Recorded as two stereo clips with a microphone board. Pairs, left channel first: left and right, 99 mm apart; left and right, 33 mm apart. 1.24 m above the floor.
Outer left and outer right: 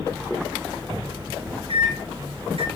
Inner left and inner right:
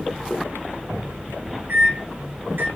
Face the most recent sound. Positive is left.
turn(degrees=-85)